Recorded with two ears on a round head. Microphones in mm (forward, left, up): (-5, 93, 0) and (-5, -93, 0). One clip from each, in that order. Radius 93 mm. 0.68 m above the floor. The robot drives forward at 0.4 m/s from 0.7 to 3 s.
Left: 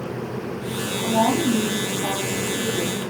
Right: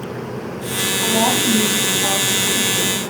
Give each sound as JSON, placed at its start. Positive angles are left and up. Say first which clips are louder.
{"t": 1.0, "sound": "a woman speaking", "louder": "right 2 dB", "side_deg": -70, "distance_m": 4.5}